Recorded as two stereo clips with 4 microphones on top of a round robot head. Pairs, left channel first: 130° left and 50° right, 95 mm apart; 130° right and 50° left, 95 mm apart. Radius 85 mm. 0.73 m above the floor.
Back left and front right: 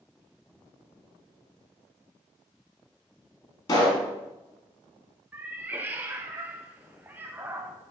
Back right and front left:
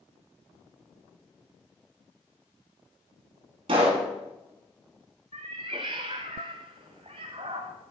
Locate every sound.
3.7 s a pop: 80° left, 2.5 m
5.3 s a cat meowing: 20° left, 0.5 m